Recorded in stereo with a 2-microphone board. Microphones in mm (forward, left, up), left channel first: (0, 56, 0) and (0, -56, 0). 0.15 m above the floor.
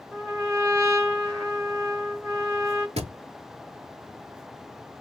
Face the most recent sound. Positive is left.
turn(degrees=-65)  # may be behind; listen again after turning